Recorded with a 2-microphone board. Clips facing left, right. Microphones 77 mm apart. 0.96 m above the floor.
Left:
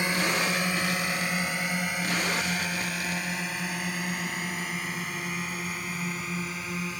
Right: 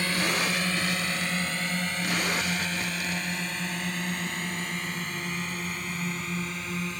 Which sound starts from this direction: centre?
A drone, at 0.0 s.